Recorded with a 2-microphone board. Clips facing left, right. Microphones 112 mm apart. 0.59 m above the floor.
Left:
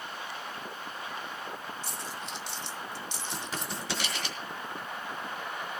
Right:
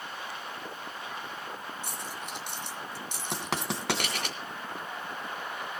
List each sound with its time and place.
1.8 s a dropped coin: 45° right (ahead or behind), 4.5 m
3.3 s writing: 65° right (ahead or behind), 3 m